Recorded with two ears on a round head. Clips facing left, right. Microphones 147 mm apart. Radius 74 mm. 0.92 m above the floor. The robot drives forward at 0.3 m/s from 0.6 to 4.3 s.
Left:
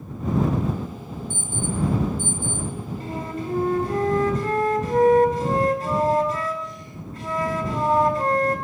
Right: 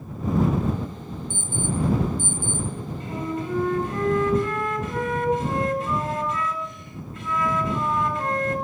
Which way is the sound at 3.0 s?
30° left (ahead or behind).